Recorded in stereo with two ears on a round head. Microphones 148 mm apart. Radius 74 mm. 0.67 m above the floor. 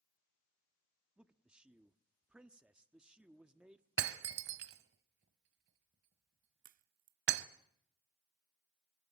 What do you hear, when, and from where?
1.2 s a man speaking: 5° right (ahead or behind), 1.0 m
4.0 s breaking glass: 75° right (ahead or behind), 1.1 m
6.6 s a crack: 50° right (ahead or behind), 0.6 m